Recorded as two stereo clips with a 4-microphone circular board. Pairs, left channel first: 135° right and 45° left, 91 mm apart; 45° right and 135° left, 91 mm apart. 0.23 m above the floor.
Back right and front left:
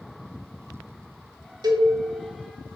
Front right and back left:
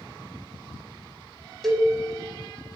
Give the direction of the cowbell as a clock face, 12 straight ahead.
11 o'clock.